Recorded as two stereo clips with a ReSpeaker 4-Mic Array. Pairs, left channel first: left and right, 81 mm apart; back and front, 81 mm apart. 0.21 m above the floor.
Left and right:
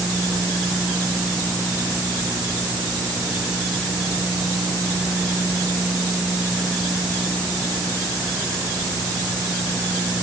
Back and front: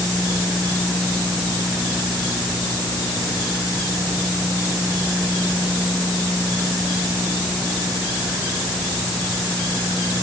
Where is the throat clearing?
I don't hear throat clearing.